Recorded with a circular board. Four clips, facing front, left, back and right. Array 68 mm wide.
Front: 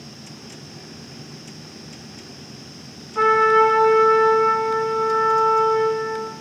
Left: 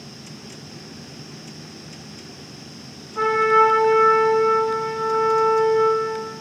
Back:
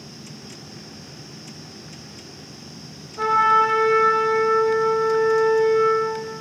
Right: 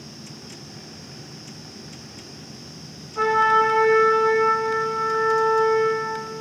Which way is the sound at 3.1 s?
5° left.